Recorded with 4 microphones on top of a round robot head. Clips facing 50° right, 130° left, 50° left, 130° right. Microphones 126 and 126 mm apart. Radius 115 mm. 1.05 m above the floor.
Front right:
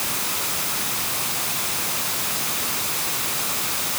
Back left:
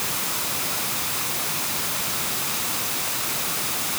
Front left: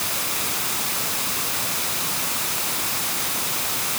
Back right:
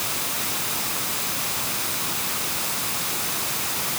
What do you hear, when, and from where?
Only background noise.